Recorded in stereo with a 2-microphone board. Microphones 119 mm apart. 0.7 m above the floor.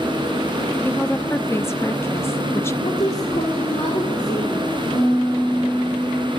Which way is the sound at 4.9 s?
65° left (ahead or behind).